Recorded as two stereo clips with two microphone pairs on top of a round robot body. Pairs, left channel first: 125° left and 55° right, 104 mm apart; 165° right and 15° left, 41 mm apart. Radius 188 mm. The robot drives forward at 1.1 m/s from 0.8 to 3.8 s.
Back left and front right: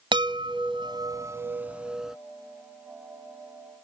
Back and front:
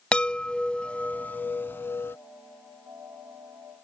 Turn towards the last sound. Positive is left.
turn(degrees=-160)